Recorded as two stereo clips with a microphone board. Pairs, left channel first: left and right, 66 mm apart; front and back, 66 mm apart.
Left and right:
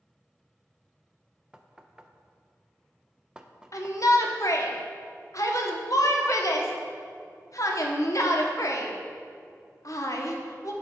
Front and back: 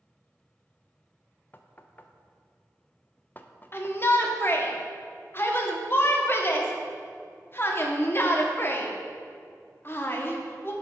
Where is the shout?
55° left, 1.1 m.